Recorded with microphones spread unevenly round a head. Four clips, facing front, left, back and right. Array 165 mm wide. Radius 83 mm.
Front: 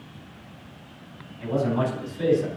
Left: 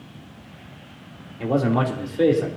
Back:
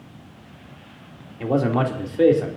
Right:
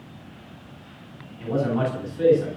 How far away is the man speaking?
About 3 m.